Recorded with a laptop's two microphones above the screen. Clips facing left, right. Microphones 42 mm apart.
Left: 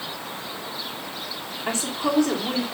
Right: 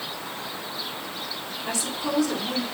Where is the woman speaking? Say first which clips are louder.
Left 4 dB; 40° left (ahead or behind), 3 m.